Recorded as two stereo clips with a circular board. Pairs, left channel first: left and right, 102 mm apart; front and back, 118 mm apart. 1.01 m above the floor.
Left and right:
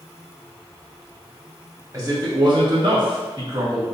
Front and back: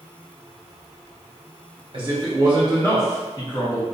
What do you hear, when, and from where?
1.9 s a man speaking: 145° right, 0.7 m; by 3.9 s 35° right, 1.2 m